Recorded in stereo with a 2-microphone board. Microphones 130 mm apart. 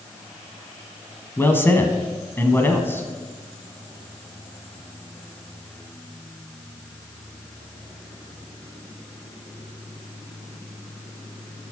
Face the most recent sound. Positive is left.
turn(degrees=15)  # may be behind; listen again after turning